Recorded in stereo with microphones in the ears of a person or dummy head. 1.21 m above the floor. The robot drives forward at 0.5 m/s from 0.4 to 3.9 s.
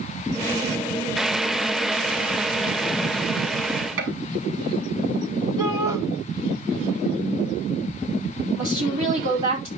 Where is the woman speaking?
45° right (ahead or behind), 3.5 m.